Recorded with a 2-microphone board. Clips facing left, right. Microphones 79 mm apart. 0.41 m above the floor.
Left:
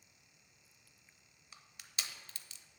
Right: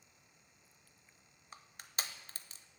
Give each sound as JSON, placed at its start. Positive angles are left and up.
{"t": 1.5, "sound": "crushing", "side_deg": -40, "distance_m": 0.6}